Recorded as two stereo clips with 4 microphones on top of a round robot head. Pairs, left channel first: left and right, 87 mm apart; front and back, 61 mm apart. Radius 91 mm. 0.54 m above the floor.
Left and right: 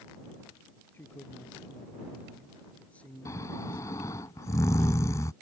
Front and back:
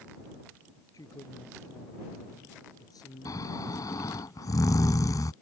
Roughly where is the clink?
I don't hear a clink.